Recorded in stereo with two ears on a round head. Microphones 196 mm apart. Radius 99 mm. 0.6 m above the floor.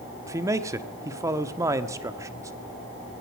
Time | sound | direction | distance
0.3 | a man speaking | 15° right (ahead or behind) | 1.0 m